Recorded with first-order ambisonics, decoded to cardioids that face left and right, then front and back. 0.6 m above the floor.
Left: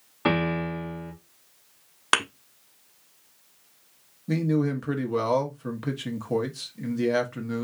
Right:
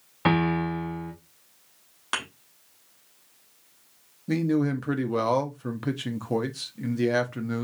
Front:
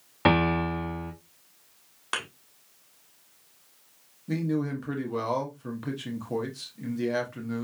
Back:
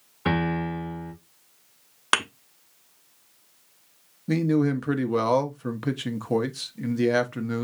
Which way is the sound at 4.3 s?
165° right.